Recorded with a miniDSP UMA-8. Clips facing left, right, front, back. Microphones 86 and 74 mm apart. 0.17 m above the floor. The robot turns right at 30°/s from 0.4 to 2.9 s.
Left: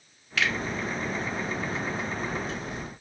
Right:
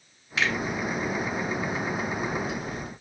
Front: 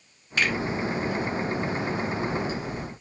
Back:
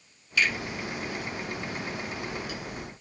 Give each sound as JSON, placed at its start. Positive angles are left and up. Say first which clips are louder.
{"t": 0.4, "sound": "a finger snap", "louder": "right 1 dB, front 1 dB", "azimuth_deg": -30, "distance_m": 1.3}